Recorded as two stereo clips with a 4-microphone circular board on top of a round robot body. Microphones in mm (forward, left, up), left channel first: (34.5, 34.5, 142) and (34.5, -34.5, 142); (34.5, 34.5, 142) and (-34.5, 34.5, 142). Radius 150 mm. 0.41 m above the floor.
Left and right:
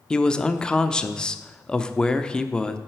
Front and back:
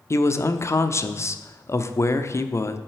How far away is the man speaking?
About 1.0 m.